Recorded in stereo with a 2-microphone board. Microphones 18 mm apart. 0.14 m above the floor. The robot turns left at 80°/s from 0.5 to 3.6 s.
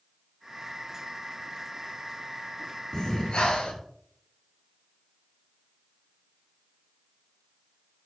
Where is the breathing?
135° left, 0.6 m; by 3.8 s 85° left, 0.6 m.